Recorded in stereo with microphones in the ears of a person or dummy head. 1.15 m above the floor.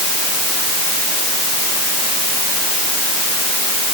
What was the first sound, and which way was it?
Only background noise.